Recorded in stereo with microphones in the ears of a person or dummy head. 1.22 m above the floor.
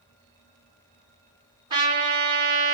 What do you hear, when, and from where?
1.7 s a trumpet: 35° right (ahead or behind), 2.5 m